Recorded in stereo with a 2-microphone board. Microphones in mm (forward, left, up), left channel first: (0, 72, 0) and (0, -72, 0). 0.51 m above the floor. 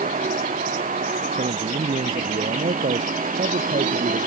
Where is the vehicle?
75° right (ahead or behind); by 4.3 s 70° right (ahead or behind).